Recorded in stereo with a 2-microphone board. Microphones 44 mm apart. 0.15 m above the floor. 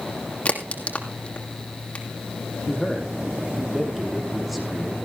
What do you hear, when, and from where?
0.5 s a crack: 35° left (ahead or behind), 3 m
2.7 s a man speaking: centre (ahead or behind), 4 m